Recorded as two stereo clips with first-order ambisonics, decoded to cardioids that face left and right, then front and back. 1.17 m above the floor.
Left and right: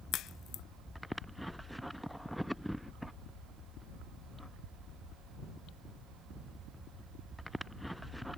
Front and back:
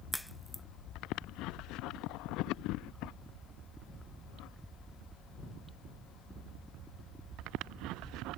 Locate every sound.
0.1 s a crack: 85° left